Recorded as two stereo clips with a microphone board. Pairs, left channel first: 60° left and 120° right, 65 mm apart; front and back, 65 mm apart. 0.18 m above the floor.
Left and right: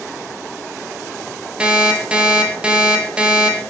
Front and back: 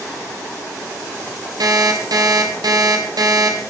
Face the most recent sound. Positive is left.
turn(degrees=165)